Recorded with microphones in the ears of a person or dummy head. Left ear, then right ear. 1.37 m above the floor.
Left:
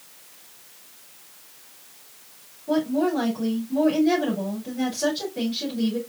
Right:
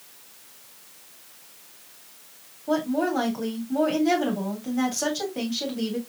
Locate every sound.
2.7 s a woman speaking: 55° right (ahead or behind), 3 m